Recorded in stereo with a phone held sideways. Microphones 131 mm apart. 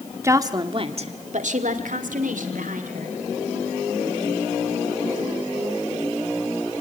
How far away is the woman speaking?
About 1.9 m.